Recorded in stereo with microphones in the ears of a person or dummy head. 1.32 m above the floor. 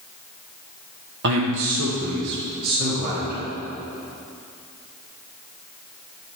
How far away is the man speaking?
About 0.9 m.